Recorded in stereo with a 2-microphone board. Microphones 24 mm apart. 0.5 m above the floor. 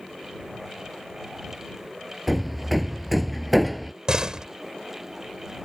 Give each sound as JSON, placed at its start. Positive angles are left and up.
{"t": 2.3, "sound": "hammering", "side_deg": 0}
{"t": 4.1, "sound": "a door slam", "side_deg": -30}